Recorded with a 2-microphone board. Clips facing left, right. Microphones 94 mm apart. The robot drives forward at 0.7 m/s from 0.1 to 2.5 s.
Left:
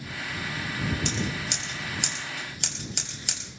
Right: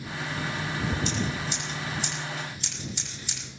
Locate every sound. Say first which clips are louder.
1.1 s scissors: right 1 dB; 80° left, 4 m; by 3.4 s 70° left (ahead or behind), 4 m